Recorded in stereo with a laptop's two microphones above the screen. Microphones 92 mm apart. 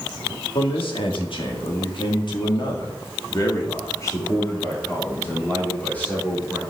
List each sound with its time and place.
0.6 s a man speaking: 80° left, 2 m; by 6.6 s 15° left (ahead or behind), 3 m